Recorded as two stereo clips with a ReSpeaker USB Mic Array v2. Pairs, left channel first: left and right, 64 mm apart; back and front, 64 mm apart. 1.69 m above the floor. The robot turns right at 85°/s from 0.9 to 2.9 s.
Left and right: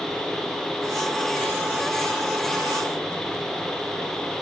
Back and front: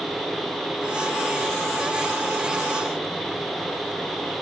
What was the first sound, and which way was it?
Only background noise.